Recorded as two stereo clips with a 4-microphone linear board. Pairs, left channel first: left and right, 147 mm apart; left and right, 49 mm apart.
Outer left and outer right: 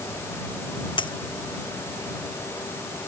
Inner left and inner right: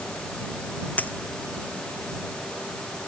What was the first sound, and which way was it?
A dropped coin, 35° left (ahead or behind).